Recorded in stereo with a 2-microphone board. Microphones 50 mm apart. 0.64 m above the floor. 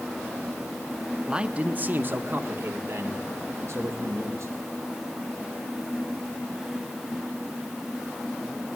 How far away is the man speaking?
About 0.9 m.